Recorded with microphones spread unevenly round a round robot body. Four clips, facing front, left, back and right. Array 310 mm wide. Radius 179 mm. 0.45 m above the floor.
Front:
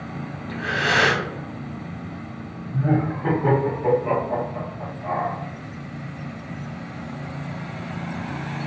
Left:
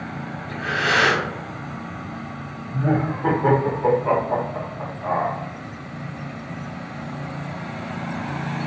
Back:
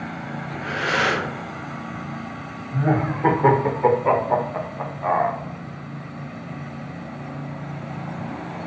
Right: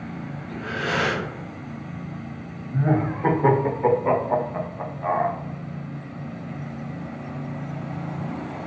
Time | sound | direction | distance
0.5 | breathing | 25° left | 1.2 m
2.7 | laughter | 175° right | 1.2 m